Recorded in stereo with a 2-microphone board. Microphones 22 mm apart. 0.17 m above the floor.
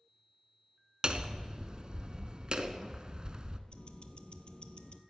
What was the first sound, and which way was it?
Hammering, 40° right (ahead or behind).